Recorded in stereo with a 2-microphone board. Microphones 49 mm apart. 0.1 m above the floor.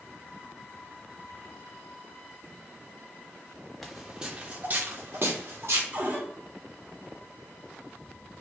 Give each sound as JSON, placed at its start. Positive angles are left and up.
{"t": 3.8, "sound": "footsteps", "side_deg": 5, "distance_m": 0.7}
{"t": 5.9, "sound": "a cupboard door", "side_deg": -35, "distance_m": 1.5}